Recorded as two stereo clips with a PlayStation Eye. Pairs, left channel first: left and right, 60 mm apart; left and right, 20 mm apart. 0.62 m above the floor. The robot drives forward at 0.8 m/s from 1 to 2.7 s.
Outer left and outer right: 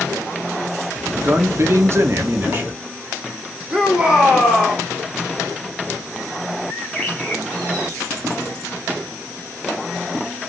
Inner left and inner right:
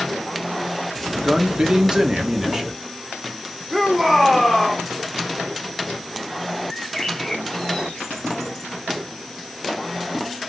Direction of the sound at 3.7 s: 10° right (ahead or behind).